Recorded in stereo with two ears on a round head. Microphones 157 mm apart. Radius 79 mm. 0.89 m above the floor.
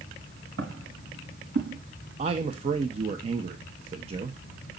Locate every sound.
0.6 s footsteps: 80° right, 5.5 m; by 1.8 s 70° right (ahead or behind), 5.5 m
2.2 s a man speaking: 35° right (ahead or behind), 0.9 m